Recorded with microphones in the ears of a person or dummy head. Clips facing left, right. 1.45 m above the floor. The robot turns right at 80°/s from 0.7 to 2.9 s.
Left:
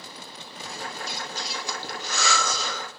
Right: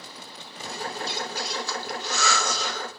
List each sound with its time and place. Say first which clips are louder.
1.0 s breathing: right 4 dB; 30° right (ahead or behind), 1.1 m; by 2.9 s 55° left (ahead or behind), 1.1 m